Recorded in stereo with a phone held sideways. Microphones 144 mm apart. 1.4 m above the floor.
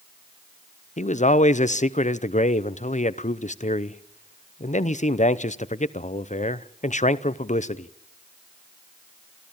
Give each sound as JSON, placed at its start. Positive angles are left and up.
{"t": 1.0, "sound": "a man speaking", "side_deg": 50, "distance_m": 0.8}